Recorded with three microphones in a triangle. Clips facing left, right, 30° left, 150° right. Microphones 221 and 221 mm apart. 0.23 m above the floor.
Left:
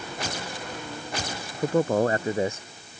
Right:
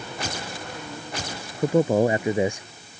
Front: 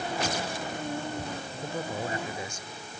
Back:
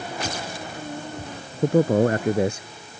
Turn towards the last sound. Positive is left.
turn(degrees=-165)